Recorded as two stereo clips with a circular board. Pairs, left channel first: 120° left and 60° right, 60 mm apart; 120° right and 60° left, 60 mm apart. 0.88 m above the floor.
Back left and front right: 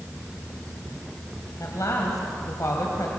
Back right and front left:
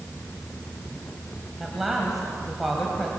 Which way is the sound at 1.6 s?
150° left.